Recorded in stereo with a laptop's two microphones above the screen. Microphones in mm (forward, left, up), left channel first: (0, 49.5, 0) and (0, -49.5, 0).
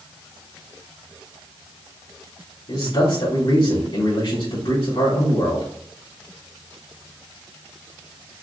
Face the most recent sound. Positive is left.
turn(degrees=65)  # may be behind; listen again after turning